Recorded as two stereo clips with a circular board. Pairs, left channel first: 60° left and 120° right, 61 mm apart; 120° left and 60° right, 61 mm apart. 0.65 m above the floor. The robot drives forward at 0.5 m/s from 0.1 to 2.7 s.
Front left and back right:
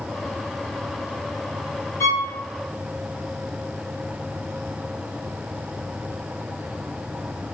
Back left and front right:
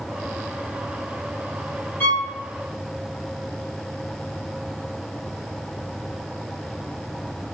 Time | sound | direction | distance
2.0 | a violin | 70° left | 1.2 m